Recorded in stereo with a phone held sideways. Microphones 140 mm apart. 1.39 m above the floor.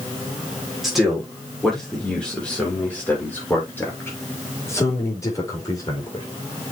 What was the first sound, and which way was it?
A man speaking, centre (ahead or behind).